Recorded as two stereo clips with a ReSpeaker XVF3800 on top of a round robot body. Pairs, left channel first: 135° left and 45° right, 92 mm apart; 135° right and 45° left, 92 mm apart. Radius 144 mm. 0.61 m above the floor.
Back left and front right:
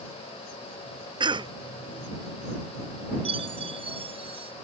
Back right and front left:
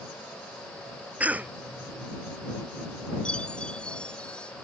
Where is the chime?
55° right.